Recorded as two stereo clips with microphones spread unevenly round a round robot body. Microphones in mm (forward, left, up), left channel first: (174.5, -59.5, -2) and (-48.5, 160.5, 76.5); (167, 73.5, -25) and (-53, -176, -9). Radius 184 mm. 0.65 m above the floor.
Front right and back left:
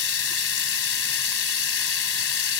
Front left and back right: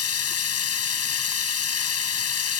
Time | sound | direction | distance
0.0 | running water | 5° left | ?